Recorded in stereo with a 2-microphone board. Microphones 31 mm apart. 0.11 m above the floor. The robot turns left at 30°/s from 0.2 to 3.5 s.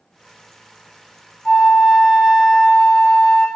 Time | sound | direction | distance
1.4 | a flute | 35° right | 1.0 m